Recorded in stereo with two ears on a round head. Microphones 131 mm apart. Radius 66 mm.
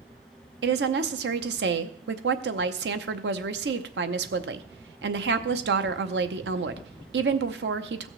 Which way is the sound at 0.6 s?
80° right.